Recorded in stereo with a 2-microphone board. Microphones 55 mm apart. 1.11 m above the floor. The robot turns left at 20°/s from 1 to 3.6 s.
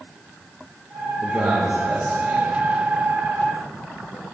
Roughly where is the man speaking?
Right.